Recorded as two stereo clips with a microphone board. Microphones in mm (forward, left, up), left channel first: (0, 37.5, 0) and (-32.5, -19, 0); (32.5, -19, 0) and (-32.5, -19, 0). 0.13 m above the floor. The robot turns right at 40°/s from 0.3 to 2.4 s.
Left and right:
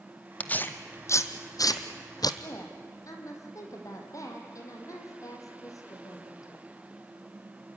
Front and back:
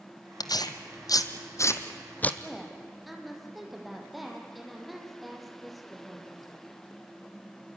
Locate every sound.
0.4 s tearing paper: 10° right, 1.1 m; by 2.3 s 65° left, 1.1 m
2.4 s a woman speaking: 90° left, 4.5 m